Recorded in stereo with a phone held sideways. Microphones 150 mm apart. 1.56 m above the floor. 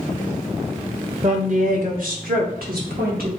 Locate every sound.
1.2 s a woman speaking: 45° right (ahead or behind), 0.8 m; by 3.4 s 85° right, 1.9 m